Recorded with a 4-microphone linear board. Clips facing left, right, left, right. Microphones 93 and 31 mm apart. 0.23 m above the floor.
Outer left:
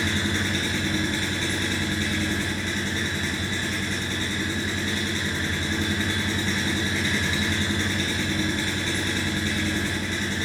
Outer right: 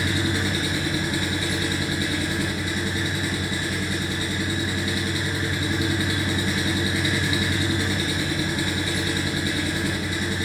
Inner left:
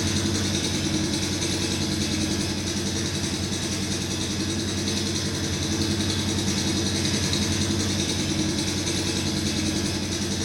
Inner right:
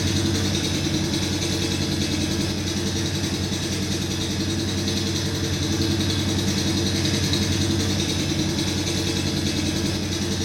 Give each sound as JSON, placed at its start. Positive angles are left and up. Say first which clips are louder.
{"t": 0.0, "sound": "an engine running", "louder": "outer right 2 dB, inner right 2 dB", "side_deg": -10, "distance_m": 2.0}